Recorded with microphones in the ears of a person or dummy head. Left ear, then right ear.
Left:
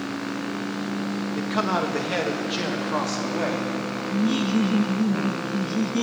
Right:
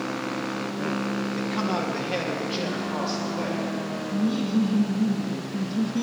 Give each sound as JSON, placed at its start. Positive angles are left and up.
{"t": 1.4, "sound": "a man speaking", "side_deg": 40, "distance_m": 1.4}
{"t": 4.1, "sound": "laughter", "side_deg": 60, "distance_m": 0.8}